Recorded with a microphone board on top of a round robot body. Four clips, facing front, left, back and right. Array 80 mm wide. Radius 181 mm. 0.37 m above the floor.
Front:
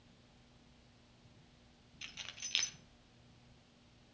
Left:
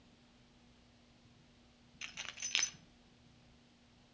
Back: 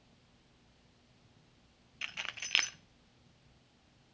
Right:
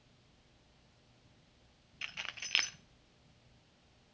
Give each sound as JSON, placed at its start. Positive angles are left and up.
{"t": 2.0, "sound": "keys jangling", "azimuth_deg": -155, "distance_m": 0.6}